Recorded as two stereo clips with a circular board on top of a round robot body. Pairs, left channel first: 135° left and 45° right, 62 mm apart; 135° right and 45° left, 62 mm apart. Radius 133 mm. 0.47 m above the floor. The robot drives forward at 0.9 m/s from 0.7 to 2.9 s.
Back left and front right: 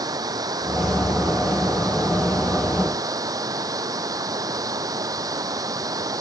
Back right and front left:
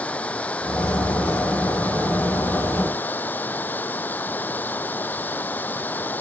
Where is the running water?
65° right; by 6.2 s 70° right.